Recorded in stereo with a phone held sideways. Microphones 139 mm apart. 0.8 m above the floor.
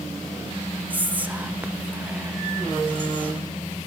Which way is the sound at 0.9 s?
10° right (ahead or behind).